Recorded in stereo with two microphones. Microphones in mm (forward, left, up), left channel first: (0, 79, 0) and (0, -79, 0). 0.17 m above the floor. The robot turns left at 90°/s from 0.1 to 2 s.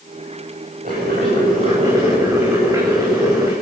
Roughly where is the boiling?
Ahead right.